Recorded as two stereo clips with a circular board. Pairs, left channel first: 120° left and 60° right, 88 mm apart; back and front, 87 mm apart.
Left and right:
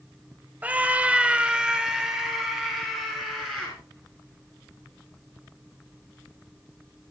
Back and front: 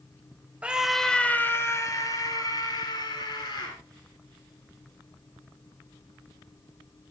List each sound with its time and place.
0.6 s a scream: 40° right, 1.2 m; by 3.8 s 150° right, 3.5 m